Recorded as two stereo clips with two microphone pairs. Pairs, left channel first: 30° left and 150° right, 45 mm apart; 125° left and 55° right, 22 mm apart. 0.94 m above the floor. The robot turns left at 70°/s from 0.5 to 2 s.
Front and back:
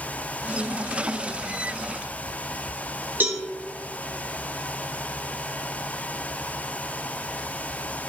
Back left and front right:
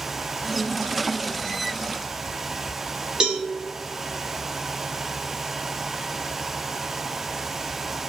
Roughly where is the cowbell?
Right.